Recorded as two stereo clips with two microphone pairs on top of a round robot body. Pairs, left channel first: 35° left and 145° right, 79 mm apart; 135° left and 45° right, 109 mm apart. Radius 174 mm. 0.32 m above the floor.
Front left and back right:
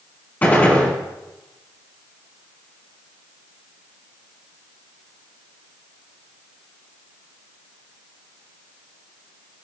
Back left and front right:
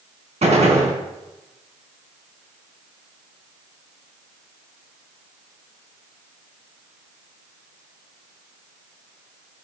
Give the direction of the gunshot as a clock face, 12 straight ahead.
1 o'clock.